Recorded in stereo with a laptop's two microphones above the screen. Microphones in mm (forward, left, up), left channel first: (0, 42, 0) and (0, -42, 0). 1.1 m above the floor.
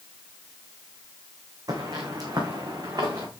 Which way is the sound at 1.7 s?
45° right (ahead or behind).